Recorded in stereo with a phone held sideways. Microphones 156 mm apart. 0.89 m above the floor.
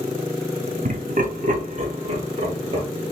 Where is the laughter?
60° right (ahead or behind), 1.1 m; by 2.9 s 40° right (ahead or behind), 1.8 m.